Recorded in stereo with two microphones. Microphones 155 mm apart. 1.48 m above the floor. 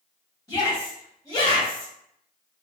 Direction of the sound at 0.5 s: 20° left (ahead or behind).